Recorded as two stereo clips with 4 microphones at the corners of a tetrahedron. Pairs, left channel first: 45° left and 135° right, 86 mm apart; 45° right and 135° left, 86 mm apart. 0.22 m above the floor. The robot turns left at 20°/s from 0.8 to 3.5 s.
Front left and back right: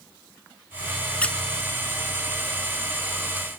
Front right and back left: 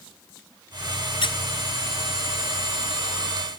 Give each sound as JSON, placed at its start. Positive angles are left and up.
{"t": 1.2, "sound": "a squeak", "azimuth_deg": -30, "distance_m": 0.6}